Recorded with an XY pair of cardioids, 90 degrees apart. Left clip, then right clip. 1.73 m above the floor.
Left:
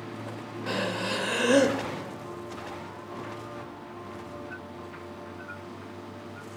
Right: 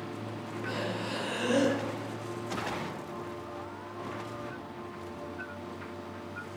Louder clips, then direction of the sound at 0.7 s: Left 6 dB; 70° left.